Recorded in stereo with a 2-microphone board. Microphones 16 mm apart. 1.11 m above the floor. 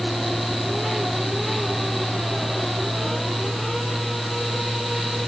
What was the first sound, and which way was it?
Only background noise.